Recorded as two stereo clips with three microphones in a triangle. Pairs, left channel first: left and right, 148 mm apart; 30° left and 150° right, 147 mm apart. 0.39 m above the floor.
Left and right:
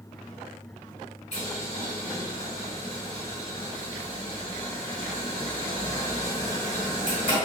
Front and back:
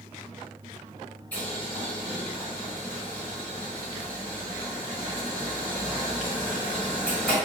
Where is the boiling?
105° left, 1.8 m.